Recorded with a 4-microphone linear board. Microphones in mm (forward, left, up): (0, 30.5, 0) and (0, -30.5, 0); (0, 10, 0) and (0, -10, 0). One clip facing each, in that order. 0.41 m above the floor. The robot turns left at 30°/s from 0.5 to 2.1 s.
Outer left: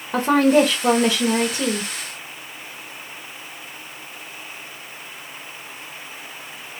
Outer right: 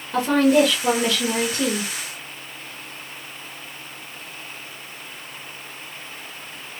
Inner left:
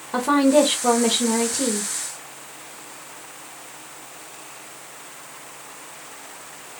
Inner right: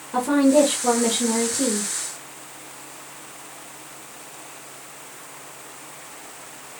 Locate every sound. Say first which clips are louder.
0.1 s a woman speaking: outer left 1 dB, even; 50° left, 1.1 m; by 1.9 s 10° left, 1.1 m